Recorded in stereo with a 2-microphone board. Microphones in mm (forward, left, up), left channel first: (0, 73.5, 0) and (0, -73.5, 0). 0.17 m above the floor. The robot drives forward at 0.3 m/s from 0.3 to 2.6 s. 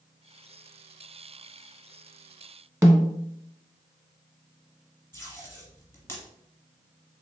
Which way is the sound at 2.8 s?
20° right (ahead or behind).